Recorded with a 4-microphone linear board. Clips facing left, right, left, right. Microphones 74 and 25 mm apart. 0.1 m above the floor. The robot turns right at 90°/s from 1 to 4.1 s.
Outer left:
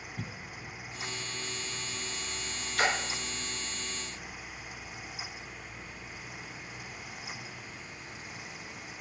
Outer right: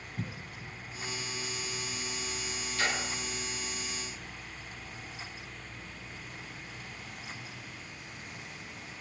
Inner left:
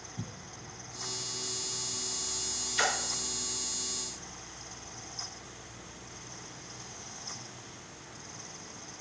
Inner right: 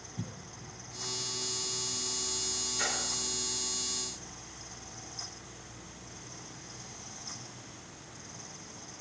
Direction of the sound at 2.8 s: 85° left.